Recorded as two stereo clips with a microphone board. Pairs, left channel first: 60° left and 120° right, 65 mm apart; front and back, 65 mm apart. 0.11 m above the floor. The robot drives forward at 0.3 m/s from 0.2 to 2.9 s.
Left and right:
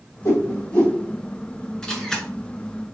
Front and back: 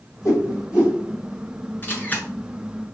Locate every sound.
0.2 s a whoosh: 40° left, 1.9 m; by 1.0 s 45° left, 1.8 m
1.8 s a camera shutter: 5° right, 1.8 m